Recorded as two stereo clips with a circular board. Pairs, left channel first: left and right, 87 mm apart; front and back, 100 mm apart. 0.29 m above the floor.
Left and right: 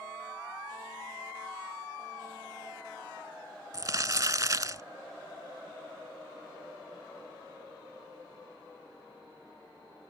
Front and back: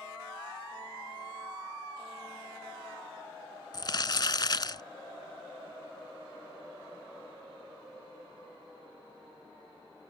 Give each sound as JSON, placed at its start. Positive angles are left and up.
{"t": 3.7, "sound": "crumpling", "azimuth_deg": -40}